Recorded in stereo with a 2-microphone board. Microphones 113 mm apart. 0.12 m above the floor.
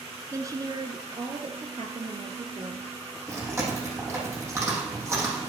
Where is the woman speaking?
25° right (ahead or behind), 1.4 m; by 2.9 s 65° right (ahead or behind), 3 m.